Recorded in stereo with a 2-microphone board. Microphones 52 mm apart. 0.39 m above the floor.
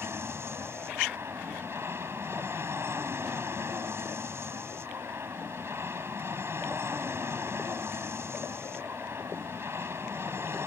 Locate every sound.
0.0 s an aircraft: 55° right (ahead or behind)